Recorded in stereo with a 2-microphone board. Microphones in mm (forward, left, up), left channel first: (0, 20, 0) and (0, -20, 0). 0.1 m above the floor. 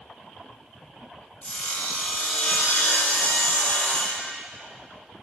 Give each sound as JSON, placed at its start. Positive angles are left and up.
{"t": 1.4, "sound": "sawing", "side_deg": 30, "distance_m": 2.0}